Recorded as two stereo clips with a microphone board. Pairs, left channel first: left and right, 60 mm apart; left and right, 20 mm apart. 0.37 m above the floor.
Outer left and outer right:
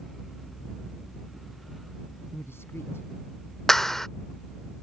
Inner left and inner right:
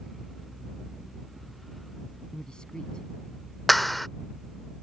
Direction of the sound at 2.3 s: 45° left (ahead or behind).